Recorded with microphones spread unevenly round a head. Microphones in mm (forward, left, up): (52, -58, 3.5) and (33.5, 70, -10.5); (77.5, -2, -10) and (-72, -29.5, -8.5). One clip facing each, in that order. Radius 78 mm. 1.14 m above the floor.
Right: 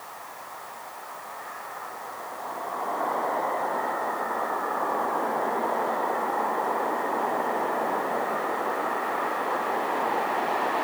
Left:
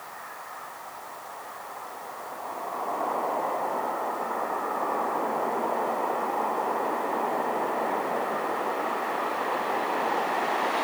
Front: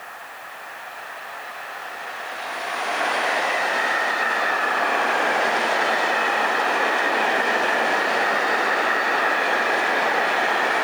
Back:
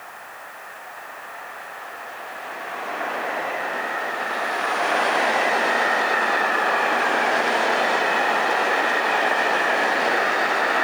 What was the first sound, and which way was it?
Only background noise.